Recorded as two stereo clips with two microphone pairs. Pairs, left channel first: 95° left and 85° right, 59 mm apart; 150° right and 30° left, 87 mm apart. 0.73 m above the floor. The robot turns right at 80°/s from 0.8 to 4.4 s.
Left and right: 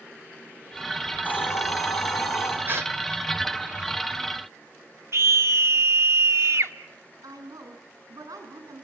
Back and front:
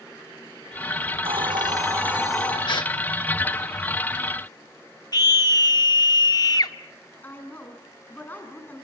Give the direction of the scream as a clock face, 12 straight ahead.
4 o'clock.